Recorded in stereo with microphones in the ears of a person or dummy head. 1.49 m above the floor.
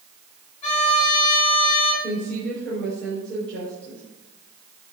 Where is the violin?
40° left (ahead or behind), 6.5 m.